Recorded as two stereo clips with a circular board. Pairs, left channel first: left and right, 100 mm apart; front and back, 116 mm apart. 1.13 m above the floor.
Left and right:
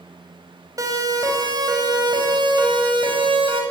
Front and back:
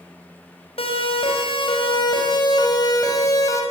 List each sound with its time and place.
0.8 s a siren: 35° right, 5.5 m; by 3.6 s 60° right, 6 m